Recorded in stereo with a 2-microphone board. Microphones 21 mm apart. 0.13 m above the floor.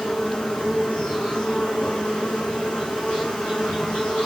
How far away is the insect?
About 2.5 m.